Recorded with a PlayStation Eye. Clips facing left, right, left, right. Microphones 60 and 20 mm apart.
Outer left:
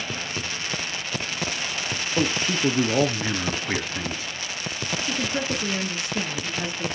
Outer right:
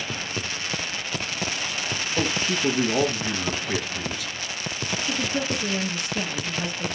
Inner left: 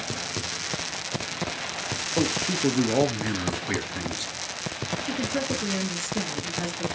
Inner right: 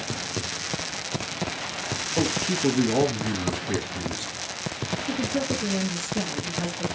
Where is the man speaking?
30° left (ahead or behind), 1.4 m.